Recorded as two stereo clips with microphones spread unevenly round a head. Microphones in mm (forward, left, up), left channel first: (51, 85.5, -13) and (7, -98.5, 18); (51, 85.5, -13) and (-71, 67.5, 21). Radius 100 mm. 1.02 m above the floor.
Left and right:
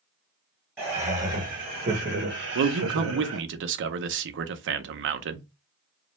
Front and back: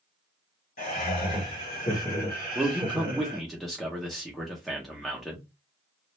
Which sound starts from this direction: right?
A man speaking, at 2.5 s.